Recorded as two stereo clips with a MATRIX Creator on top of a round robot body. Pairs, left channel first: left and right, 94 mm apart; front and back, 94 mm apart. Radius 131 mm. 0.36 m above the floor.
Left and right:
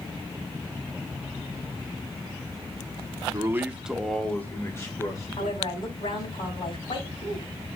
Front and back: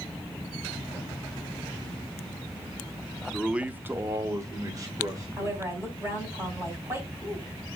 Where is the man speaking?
100° right, 1.0 m; by 6.3 s 130° left, 2.5 m.